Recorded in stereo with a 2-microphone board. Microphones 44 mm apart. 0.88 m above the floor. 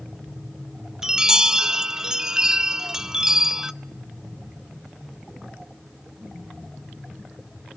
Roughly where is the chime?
Centre.